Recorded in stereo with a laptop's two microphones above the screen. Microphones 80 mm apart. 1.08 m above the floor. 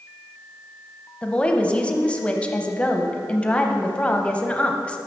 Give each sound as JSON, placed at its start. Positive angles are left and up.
{"t": 1.2, "sound": "a woman speaking", "side_deg": 15, "distance_m": 0.7}